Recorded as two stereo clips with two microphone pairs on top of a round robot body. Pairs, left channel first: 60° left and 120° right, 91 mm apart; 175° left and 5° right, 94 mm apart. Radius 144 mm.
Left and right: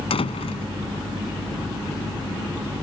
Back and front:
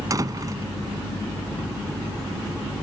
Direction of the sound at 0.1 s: 50° left.